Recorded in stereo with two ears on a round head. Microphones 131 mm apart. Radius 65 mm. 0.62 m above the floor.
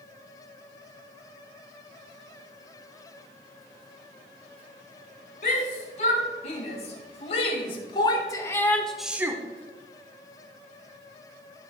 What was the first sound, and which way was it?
A shout, 55° left (ahead or behind).